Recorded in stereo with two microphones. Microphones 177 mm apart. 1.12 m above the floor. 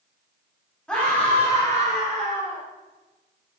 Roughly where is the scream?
Centre.